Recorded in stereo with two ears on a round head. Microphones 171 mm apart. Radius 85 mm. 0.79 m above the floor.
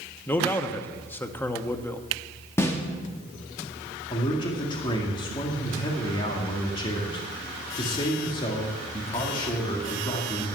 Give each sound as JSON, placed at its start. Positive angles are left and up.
{"t": 0.3, "sound": "a man speaking", "side_deg": 10, "distance_m": 0.9}
{"t": 2.6, "sound": "a snare drum", "side_deg": 15, "distance_m": 1.5}
{"t": 4.1, "sound": "a man speaking", "side_deg": 25, "distance_m": 1.8}